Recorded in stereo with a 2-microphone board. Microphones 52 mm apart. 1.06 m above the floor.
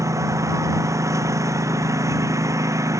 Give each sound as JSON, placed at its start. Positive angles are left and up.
{"t": 0.0, "sound": "a lawn mower", "side_deg": -75}